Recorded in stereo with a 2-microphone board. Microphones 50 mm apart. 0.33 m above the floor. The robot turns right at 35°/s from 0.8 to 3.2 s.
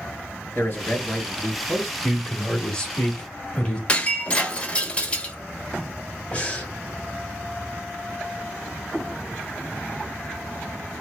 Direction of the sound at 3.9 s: 25° left (ahead or behind).